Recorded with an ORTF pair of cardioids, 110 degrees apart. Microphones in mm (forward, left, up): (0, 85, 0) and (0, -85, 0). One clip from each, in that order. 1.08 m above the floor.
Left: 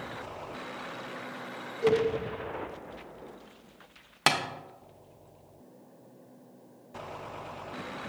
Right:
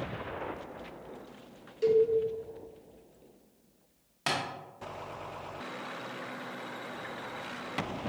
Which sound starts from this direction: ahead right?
A cowbell, at 1.8 s.